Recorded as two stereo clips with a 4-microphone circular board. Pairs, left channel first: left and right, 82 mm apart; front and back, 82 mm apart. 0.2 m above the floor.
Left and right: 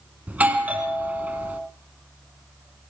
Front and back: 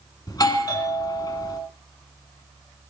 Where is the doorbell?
20° right, 2 m.